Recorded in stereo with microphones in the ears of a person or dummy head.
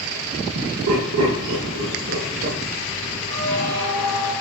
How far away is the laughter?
About 1.0 m.